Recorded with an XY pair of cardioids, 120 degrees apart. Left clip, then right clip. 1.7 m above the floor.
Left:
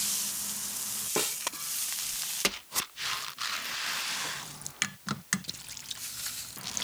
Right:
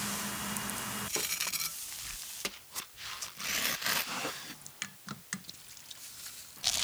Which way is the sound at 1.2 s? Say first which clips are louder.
Left 5 dB; 45° left.